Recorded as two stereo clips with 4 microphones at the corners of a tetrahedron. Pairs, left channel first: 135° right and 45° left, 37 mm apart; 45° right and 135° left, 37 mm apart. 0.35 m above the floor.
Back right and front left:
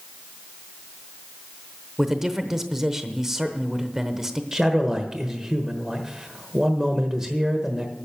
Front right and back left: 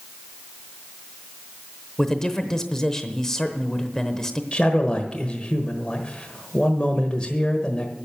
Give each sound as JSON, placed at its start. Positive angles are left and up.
{"t": 2.0, "sound": "a man speaking", "azimuth_deg": -10, "distance_m": 0.9}
{"t": 4.5, "sound": "a man speaking", "azimuth_deg": -15, "distance_m": 1.2}